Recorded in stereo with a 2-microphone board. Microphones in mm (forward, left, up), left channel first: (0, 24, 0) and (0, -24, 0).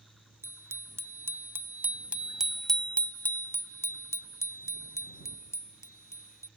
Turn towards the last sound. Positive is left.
turn(degrees=85)